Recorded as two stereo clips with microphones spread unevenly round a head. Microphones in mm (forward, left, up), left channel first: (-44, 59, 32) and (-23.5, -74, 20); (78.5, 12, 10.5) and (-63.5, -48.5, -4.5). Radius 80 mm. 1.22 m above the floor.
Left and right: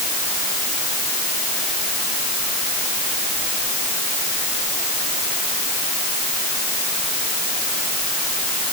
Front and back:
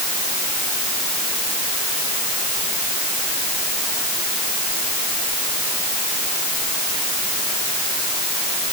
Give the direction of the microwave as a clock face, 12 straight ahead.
No microwave in this recording.